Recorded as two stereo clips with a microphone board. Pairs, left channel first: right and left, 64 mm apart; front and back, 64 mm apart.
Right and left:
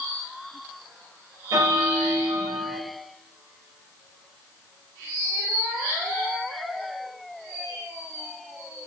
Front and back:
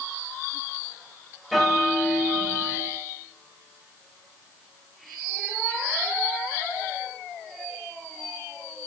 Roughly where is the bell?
Left.